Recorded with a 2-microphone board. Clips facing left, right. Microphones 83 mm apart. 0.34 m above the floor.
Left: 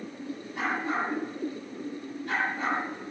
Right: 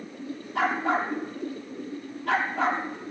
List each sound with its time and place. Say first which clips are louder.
0.6 s a dog barking: right 5 dB; 75° right (ahead or behind), 2.5 m